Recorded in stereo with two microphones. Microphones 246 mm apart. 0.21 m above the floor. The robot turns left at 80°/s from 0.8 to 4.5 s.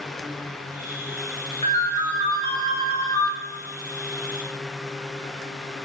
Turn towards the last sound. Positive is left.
turn(degrees=-70)